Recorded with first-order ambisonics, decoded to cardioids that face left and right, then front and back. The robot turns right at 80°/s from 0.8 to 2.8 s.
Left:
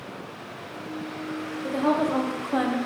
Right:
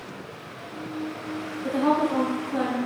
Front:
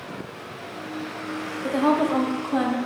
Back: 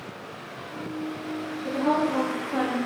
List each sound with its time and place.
1.6 s a woman speaking: 5° left, 0.7 m; by 2.8 s 95° left, 0.7 m